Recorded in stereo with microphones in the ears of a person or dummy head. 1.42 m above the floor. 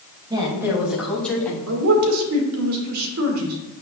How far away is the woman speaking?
About 2.5 m.